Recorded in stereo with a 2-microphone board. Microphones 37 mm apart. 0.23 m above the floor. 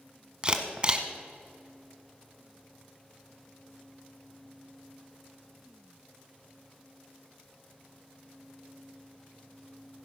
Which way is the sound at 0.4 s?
25° right (ahead or behind).